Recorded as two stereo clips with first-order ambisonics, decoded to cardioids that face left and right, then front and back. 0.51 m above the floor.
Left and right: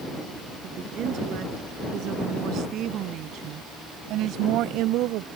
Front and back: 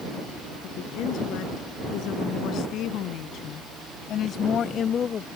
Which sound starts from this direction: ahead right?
A woman speaking, at 0.6 s.